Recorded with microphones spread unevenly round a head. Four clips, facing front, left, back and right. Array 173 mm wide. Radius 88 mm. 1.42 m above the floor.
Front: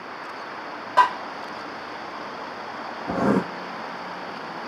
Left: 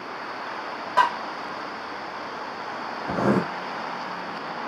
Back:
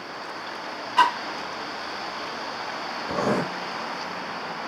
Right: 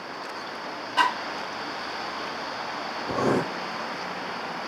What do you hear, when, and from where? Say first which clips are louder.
1.0 s tapping: left 3 dB, front 2 dB; 20° left, 5.5 m
3.1 s writing: left 2 dB, front 3 dB; 25° left, 6 m